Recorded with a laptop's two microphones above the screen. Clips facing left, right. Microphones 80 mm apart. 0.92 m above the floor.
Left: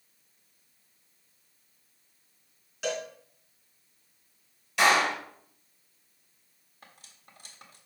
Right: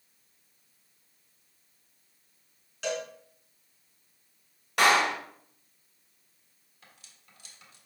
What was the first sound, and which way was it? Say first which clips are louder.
A cowbell: even; 5° left (ahead or behind).